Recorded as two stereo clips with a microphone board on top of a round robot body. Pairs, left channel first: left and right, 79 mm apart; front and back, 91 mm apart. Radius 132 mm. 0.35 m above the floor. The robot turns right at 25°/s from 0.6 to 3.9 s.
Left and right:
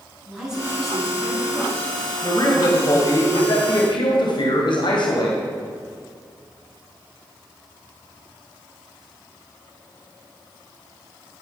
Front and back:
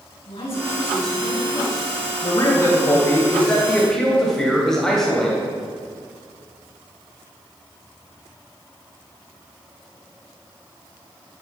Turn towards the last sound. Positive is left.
turn(degrees=85)